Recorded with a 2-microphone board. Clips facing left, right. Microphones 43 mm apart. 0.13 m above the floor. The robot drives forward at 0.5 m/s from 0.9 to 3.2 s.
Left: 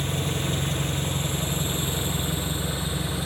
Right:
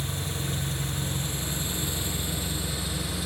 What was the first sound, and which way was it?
An engine running, 50° left (ahead or behind).